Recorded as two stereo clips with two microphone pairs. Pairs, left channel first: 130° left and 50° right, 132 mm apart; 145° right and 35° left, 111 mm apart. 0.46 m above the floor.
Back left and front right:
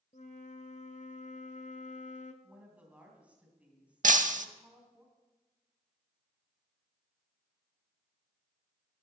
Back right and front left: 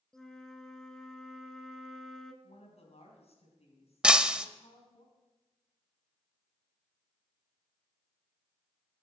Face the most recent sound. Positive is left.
turn(degrees=-40)